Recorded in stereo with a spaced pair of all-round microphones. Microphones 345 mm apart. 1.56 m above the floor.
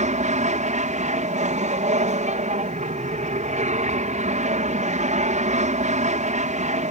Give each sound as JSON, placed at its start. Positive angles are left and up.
{"t": 0.0, "sound": "an aircraft", "side_deg": -20}